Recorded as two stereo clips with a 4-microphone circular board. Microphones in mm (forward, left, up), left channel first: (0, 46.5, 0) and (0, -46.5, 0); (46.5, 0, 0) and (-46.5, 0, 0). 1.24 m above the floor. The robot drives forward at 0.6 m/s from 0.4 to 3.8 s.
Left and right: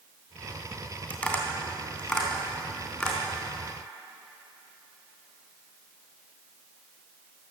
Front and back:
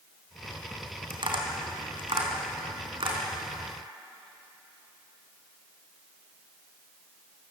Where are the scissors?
I don't hear scissors.